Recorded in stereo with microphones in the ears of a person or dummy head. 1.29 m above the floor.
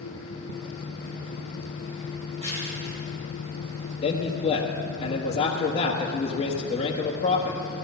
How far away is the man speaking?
About 1.4 m.